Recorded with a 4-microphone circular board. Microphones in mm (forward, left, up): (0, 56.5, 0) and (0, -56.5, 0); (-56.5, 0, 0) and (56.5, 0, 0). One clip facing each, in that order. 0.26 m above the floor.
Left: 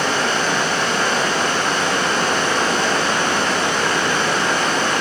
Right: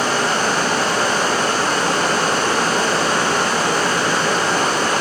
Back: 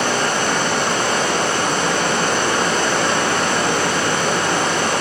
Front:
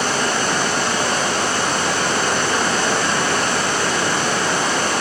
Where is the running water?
145° right, 8.5 m.